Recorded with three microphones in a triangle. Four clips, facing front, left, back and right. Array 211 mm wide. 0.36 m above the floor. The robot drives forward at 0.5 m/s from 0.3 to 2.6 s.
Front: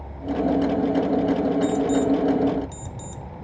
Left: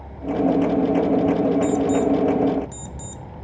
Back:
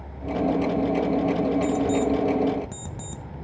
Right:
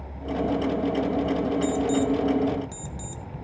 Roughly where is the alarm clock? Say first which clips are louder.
Left 4 dB, front 2 dB; behind.